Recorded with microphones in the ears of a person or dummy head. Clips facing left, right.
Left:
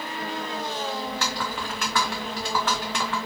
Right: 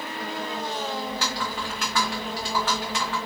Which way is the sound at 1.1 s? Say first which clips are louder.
Even; 55° left (ahead or behind).